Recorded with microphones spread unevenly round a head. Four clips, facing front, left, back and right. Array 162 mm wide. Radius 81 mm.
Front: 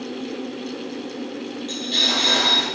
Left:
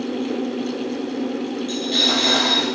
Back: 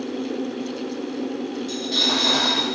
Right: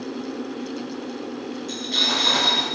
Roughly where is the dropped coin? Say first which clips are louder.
Left 5 dB, even; behind left.